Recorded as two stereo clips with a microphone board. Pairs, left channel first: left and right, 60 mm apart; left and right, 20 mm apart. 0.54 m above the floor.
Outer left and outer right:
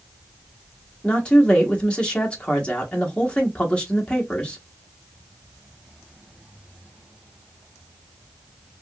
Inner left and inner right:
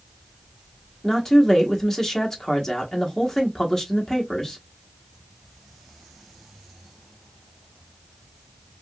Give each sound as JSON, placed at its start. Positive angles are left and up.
{"t": 1.0, "sound": "a woman speaking", "side_deg": 20, "distance_m": 1.0}